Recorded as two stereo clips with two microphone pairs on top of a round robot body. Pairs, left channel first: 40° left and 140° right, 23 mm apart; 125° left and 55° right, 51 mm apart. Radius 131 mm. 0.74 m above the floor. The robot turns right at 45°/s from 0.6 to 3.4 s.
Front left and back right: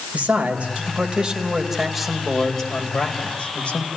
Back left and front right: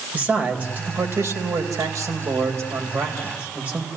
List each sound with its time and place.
0.1 s a man speaking: 115° right, 4 m; by 3.9 s 10° left, 4 m